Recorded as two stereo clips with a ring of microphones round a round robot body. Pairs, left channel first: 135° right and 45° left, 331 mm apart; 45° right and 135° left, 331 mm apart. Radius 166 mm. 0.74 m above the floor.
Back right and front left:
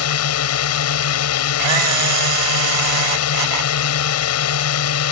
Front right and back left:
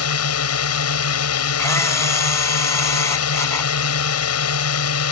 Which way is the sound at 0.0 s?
90° right.